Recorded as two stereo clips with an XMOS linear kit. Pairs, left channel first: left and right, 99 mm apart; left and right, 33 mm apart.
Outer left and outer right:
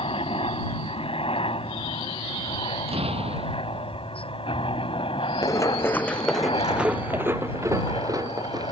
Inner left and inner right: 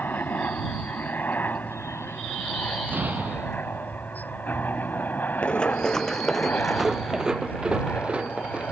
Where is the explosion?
80° right.